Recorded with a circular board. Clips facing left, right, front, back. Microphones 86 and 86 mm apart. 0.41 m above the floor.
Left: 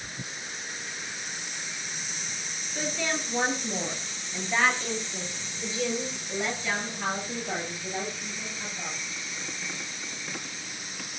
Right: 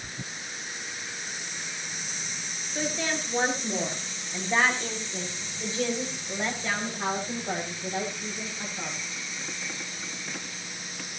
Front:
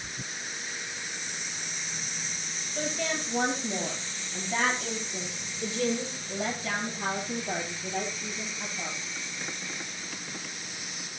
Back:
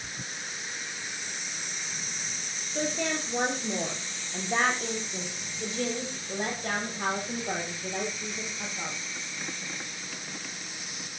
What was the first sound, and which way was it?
A woman speaking, 160° right.